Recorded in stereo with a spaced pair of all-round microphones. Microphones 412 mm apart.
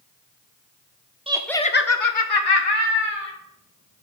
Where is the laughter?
15° right (ahead or behind), 0.7 m; by 3.3 s 85° left, 1.5 m.